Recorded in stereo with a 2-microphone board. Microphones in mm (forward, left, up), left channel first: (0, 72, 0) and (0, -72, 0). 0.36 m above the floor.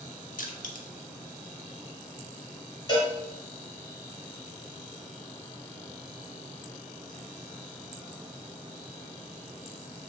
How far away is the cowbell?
About 1.1 m.